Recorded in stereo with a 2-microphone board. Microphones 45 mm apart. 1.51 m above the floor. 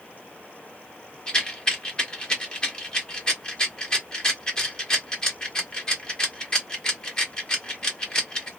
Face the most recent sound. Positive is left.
turn(degrees=20)  # may be behind; listen again after turning